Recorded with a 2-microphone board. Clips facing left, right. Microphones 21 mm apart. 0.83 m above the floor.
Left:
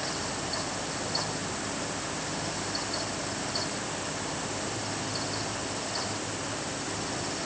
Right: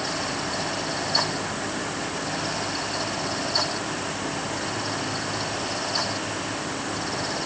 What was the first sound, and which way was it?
Only background noise.